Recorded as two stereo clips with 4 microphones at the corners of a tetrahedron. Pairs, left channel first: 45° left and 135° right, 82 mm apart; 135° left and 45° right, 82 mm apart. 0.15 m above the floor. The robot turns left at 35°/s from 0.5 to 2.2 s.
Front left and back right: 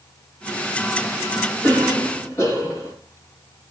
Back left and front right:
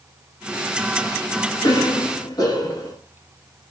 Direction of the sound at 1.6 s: 125° left.